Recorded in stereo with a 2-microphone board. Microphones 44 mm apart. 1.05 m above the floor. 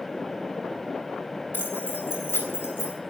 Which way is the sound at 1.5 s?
50° left (ahead or behind).